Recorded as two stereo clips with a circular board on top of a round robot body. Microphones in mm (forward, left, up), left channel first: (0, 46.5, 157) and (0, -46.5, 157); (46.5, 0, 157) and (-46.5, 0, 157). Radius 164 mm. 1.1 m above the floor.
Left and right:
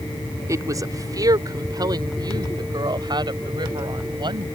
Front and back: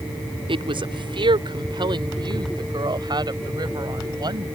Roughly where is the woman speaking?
Behind right.